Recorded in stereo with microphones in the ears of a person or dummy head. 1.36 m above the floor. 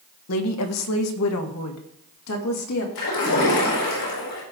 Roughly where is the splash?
Left.